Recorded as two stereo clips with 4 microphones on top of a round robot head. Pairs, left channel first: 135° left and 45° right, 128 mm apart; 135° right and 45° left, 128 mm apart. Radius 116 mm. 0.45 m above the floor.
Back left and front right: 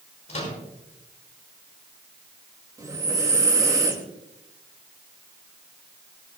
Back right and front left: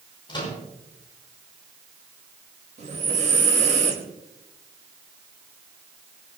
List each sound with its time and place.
0.3 s a microwave: 170° left, 6 m
2.8 s breathing: 20° left, 2 m